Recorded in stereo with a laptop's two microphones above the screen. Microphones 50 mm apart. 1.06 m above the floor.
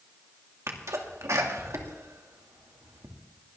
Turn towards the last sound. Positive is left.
turn(degrees=-75)  # may be behind; listen again after turning